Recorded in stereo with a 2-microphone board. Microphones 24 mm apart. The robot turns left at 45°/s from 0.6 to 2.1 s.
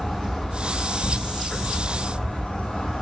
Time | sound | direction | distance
0.0 | an insect | 160° left | 1.8 m